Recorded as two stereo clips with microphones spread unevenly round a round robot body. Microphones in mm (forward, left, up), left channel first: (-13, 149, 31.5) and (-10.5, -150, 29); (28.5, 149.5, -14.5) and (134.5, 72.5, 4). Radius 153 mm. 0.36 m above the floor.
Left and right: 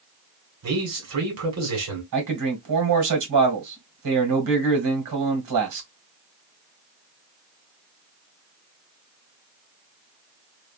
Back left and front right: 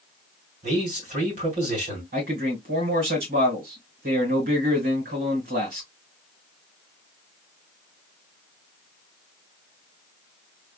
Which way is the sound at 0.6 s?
65° right.